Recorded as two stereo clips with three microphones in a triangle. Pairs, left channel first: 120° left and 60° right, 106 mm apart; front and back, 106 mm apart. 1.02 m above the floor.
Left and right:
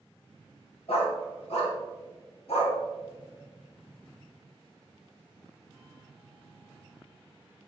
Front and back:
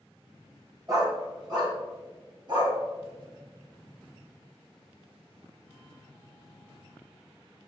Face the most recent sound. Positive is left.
turn(degrees=135)